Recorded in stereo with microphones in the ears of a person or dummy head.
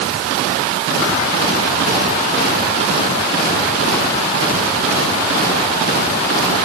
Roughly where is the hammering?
No hammering in this recording.